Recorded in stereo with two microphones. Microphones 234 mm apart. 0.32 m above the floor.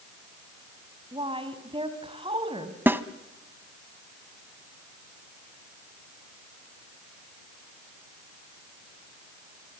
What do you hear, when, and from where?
1.1 s a woman speaking: 25° right (ahead or behind), 2.5 m
2.9 s a snare drum: 10° right (ahead or behind), 0.9 m